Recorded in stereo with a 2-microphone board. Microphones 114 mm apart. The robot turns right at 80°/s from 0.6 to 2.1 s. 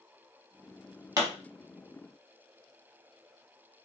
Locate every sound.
1.2 s a pop: 35° right (ahead or behind), 0.9 m; by 1.3 s 30° right (ahead or behind), 0.9 m